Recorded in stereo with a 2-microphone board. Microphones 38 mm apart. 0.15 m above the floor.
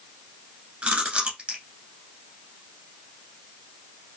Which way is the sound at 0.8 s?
35° right (ahead or behind).